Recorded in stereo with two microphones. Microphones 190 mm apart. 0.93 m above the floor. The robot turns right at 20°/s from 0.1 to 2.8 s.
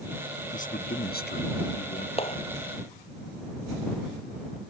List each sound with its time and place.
0.5 s a man speaking: 40° left; by 2.1 s 75° left
2.2 s a clap: 30° left (ahead or behind); by 2.4 s 35° left (ahead or behind)